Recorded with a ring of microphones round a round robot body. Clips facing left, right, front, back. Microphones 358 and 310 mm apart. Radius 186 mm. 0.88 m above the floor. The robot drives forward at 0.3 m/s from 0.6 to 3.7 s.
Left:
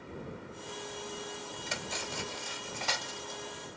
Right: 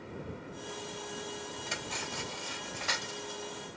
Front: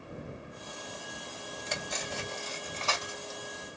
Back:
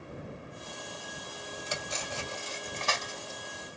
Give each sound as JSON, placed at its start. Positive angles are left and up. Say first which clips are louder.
{"t": 1.7, "sound": "cutlery clinking", "louder": "even, front 1 dB", "azimuth_deg": 100, "distance_m": 2.0}